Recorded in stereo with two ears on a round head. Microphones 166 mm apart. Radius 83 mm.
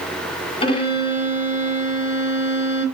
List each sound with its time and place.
0.6 s a violin: 25° left (ahead or behind), 1.8 m